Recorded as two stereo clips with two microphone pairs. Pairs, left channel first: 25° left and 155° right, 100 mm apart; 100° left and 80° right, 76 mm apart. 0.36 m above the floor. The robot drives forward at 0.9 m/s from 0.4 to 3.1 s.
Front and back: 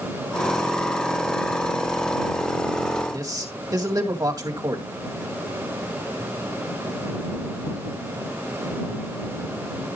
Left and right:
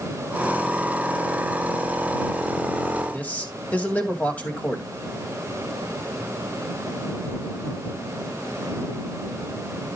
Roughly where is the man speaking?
Behind.